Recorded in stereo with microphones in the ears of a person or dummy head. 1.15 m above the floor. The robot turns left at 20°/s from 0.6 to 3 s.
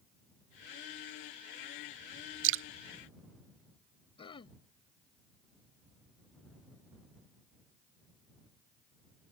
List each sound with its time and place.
2.4 s dripping: 50° right (ahead or behind); by 2.6 s 55° right (ahead or behind)
4.2 s throat clearing: 20° left (ahead or behind)